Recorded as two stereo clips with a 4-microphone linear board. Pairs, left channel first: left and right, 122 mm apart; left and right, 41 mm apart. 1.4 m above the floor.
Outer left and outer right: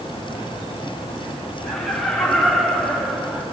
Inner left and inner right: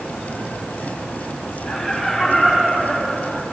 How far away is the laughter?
About 9 m.